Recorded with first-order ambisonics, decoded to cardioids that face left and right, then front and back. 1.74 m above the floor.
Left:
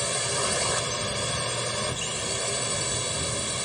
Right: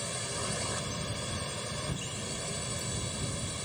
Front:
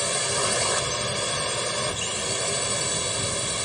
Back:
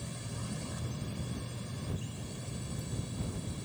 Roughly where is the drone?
Ahead left.